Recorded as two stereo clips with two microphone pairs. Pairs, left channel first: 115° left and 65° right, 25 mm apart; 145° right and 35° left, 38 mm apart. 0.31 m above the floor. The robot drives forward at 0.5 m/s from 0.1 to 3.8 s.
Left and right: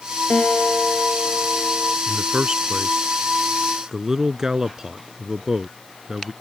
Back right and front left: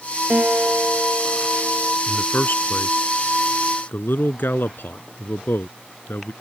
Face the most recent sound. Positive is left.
turn(degrees=-130)